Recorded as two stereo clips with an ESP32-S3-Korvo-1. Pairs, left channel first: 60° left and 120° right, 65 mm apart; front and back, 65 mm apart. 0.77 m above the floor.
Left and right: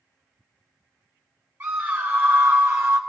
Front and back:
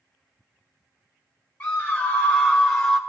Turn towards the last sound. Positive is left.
turn(degrees=-75)